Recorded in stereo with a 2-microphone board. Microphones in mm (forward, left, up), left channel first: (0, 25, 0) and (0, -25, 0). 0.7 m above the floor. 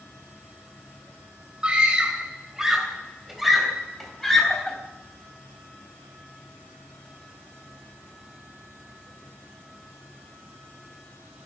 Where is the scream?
20° right (ahead or behind), 3 m; by 4.8 s 10° left (ahead or behind), 4 m.